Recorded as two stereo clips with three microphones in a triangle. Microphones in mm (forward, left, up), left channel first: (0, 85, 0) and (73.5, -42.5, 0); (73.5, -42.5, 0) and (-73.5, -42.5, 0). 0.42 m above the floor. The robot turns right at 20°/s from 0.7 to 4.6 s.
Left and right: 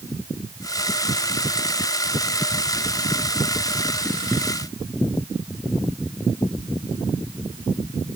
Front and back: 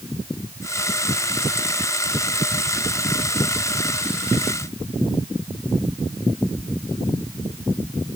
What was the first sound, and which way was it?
Only background noise.